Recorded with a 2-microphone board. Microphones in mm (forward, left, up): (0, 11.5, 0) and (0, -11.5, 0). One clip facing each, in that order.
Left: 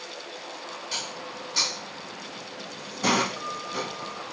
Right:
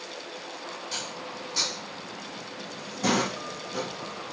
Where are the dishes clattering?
15° left (ahead or behind), 1.0 m.